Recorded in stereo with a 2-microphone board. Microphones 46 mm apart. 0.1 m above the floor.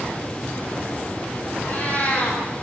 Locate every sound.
1.6 s a cat meowing: 30° left (ahead or behind), 7 m